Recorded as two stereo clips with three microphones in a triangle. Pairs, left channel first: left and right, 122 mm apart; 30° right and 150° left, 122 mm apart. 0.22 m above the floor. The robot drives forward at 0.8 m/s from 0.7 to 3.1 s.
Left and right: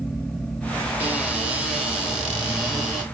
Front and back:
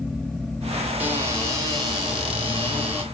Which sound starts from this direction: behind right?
A cupboard door, at 1.0 s.